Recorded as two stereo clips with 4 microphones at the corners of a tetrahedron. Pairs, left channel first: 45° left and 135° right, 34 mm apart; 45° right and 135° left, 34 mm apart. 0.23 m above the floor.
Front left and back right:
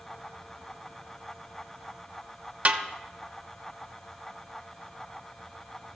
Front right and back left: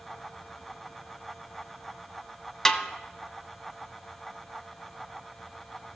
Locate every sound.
2.6 s a snare drum: 125° right, 0.7 m